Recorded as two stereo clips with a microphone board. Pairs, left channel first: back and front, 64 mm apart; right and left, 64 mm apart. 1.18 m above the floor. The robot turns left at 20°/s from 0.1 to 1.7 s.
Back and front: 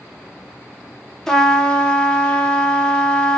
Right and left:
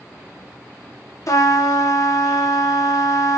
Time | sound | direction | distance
1.3 | a trumpet | 95° right | 0.9 m